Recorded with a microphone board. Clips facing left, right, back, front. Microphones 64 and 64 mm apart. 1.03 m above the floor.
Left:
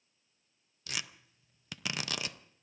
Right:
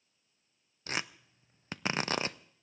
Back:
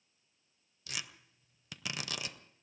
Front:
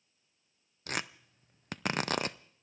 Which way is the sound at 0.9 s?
40° right.